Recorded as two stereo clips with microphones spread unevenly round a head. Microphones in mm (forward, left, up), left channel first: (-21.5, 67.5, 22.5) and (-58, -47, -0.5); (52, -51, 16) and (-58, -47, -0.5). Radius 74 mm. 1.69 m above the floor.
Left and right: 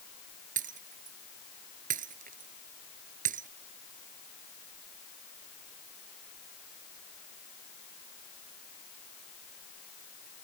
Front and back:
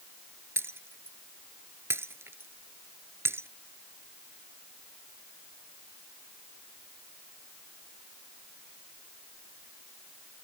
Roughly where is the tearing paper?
I don't hear tearing paper.